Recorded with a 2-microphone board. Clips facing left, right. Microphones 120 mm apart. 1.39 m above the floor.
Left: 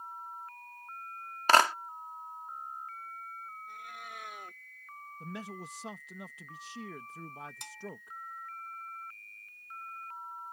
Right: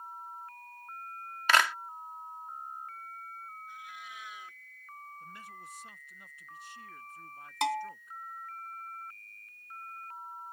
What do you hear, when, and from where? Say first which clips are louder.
1.5 s a clap: left 3 dB; 35° left (ahead or behind)
3.7 s a cat meowing: left 1 dB; 50° left (ahead or behind)
5.2 s a man speaking: left 6 dB; 80° left
7.6 s a bell: right 18 dB; 80° right